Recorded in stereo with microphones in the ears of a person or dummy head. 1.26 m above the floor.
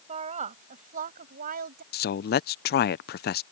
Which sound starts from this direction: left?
A man speaking, at 1.9 s.